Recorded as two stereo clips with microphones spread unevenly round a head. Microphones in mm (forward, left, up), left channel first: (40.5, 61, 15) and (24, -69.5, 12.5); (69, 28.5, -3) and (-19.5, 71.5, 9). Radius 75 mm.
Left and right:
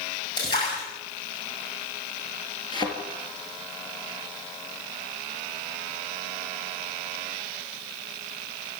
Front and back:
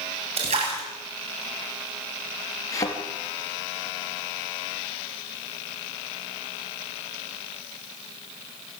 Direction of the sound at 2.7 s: 30° left.